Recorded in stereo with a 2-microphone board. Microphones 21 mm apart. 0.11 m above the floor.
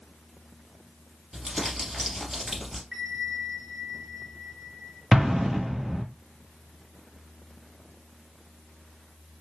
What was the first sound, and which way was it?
Crumpling, 10° right (ahead or behind).